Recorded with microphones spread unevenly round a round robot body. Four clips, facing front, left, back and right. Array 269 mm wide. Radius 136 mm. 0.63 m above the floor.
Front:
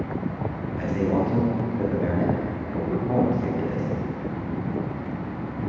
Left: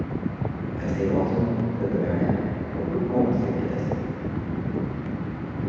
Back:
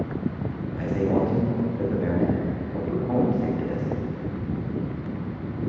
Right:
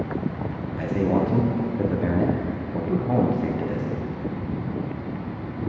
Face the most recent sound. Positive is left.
turn(degrees=-70)